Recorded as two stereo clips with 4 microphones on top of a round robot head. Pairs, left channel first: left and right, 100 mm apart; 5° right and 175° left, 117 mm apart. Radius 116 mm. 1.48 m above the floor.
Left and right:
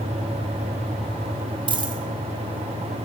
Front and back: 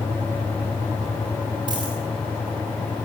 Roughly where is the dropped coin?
Behind right.